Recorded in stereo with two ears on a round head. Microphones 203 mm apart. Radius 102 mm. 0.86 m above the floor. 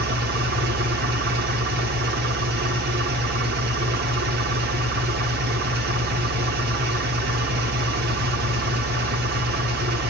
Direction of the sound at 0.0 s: 50° right (ahead or behind).